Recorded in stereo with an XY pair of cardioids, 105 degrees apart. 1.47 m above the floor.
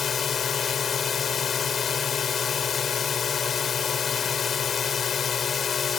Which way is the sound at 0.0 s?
50° left.